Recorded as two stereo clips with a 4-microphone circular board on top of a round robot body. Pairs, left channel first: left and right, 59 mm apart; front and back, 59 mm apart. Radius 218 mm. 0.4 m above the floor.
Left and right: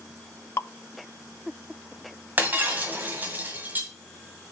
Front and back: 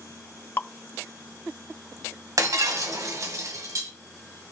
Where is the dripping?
50° left, 0.6 m.